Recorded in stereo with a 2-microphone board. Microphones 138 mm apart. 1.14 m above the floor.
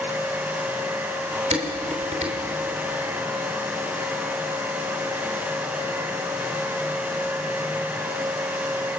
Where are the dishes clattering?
50° right (ahead or behind), 3 m.